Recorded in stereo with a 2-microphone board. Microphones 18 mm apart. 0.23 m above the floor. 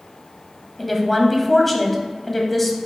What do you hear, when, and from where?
0.8 s a woman speaking: 5° left (ahead or behind), 1.0 m